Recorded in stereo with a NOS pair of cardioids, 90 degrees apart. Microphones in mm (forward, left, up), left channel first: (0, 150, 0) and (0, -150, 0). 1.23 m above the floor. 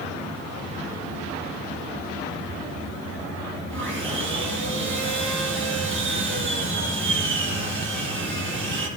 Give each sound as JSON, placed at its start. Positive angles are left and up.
{"t": 3.7, "sound": "sawing", "azimuth_deg": -40, "distance_m": 10.0}